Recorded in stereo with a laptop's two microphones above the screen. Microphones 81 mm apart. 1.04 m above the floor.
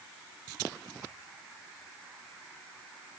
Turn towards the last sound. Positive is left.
No sound to turn to.